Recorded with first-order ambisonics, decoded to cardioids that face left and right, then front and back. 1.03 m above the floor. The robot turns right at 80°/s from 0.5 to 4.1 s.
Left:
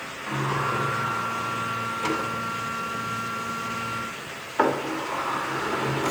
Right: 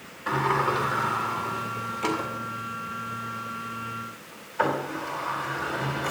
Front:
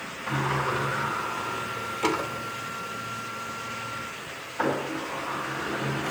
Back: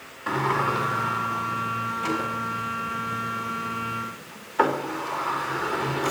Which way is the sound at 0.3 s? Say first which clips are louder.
Right 3 dB, back 4 dB; 150° right.